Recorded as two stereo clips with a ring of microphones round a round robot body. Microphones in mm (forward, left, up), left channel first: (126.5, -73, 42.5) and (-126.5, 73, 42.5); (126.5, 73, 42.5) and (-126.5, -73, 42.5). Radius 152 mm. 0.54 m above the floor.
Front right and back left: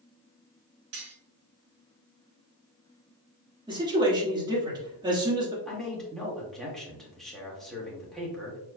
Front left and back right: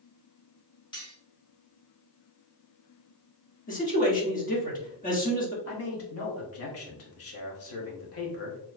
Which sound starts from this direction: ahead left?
A man speaking, at 5.7 s.